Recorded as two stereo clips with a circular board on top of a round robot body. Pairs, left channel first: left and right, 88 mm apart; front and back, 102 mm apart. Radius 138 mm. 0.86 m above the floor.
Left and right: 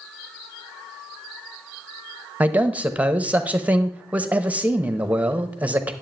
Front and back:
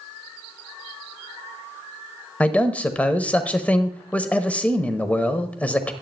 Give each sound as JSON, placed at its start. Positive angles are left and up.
{"t": 2.4, "sound": "a man speaking", "azimuth_deg": -50, "distance_m": 1.0}